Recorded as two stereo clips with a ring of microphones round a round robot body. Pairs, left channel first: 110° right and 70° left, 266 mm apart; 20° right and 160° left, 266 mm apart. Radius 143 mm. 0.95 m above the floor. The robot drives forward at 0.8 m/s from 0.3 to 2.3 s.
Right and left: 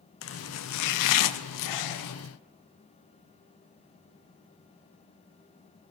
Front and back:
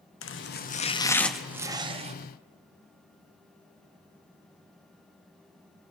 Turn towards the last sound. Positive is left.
turn(degrees=-140)